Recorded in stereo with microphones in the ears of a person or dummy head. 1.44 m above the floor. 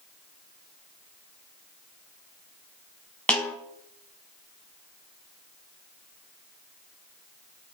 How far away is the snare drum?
About 0.8 m.